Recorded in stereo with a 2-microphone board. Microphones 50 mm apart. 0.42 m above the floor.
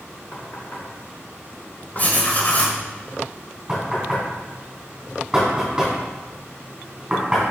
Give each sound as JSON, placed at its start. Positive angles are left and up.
{"t": 0.3, "sound": "knocking", "side_deg": 45, "distance_m": 2.5}
{"t": 2.0, "sound": "writing", "side_deg": 35, "distance_m": 1.2}
{"t": 3.7, "sound": "knocking", "side_deg": -10, "distance_m": 3.0}